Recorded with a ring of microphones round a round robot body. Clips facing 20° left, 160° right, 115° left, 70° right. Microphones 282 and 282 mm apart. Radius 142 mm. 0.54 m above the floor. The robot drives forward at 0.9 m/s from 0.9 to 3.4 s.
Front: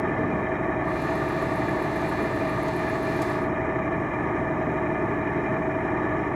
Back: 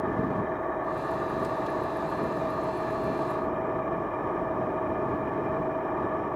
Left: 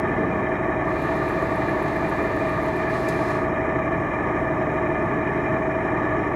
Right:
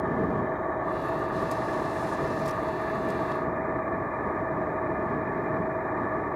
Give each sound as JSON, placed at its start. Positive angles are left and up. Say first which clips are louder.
{"t": 0.0, "sound": "an engine running", "louder": "front 3 dB, left 4 dB", "azimuth_deg": 70}